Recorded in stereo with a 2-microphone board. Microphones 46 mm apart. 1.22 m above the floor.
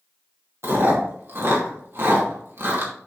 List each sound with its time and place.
0.6 s chewing: 55° right (ahead or behind), 2.5 m